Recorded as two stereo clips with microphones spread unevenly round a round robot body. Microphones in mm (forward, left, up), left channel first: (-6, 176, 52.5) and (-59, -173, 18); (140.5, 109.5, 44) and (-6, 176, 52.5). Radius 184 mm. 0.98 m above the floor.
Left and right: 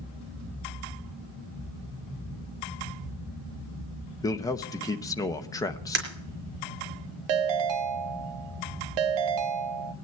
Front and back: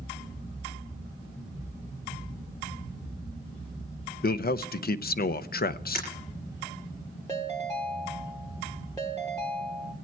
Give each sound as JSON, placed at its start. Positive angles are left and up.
{"t": 4.2, "sound": "a man speaking", "azimuth_deg": 0, "distance_m": 0.8}
{"t": 6.0, "sound": "breaking glass", "azimuth_deg": -95, "distance_m": 4.5}
{"t": 7.3, "sound": "a ringtone", "azimuth_deg": -105, "distance_m": 0.9}